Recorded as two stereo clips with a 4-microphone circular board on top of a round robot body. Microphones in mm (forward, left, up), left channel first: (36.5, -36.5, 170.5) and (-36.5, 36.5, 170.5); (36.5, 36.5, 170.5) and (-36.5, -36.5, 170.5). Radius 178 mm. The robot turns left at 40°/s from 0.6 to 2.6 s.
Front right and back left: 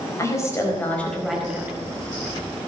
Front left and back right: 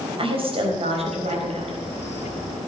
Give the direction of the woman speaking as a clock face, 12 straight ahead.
4 o'clock.